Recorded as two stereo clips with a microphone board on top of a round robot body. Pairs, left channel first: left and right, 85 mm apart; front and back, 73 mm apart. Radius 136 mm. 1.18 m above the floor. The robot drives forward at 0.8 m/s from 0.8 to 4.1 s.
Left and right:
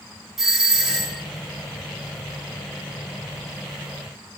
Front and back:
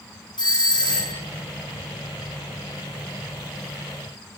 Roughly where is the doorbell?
Ahead.